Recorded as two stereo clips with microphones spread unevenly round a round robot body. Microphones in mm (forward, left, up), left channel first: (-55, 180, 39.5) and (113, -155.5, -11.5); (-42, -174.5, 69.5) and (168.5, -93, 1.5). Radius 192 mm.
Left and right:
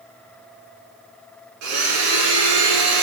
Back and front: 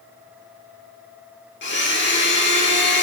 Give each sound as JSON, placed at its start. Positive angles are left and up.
{"t": 1.6, "sound": "a blender", "azimuth_deg": -115, "distance_m": 0.9}